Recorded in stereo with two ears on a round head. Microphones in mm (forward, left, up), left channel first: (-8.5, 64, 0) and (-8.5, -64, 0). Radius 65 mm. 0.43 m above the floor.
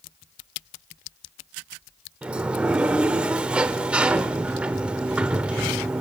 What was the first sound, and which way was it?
A sliding door, 10° right (ahead or behind).